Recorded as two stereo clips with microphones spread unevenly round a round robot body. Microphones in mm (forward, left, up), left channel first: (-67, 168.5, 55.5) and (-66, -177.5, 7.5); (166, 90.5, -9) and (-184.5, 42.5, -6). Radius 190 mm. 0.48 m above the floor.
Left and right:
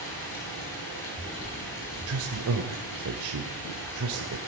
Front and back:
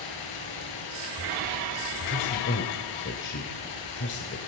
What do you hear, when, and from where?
0.0 s running water: 30° left, 9 m
2.1 s a man speaking: 50° right, 2 m